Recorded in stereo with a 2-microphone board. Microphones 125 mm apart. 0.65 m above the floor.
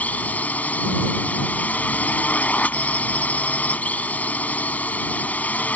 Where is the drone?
10° left (ahead or behind).